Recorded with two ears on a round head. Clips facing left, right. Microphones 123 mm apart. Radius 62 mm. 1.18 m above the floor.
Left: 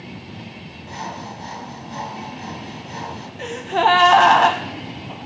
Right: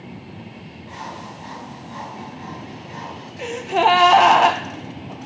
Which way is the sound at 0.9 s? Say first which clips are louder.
Left 3 dB; 50° left (ahead or behind).